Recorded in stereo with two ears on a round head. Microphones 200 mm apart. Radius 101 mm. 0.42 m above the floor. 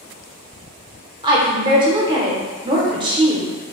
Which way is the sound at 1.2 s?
20° right (ahead or behind).